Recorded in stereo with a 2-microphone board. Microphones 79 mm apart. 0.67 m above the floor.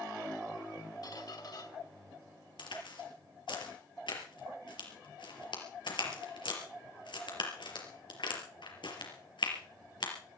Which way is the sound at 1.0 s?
55° left (ahead or behind).